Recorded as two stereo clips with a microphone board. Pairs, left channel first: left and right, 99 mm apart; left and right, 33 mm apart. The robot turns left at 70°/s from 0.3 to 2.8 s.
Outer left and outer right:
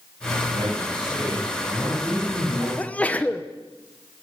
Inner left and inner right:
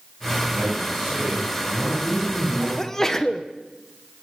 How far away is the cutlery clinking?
No cutlery clinking in this recording.